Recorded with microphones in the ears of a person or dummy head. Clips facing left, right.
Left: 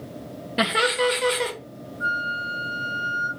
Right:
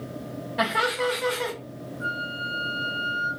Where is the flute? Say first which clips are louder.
Left 1 dB; centre (ahead or behind), 1.6 m.